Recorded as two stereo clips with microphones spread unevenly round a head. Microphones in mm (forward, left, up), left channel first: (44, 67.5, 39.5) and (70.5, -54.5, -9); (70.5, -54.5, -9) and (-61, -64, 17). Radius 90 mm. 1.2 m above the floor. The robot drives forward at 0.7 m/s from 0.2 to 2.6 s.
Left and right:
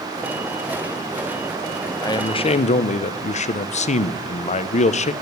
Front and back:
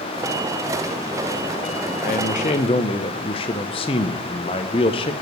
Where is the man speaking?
35° left, 0.9 m; by 5.1 s 60° left, 0.6 m.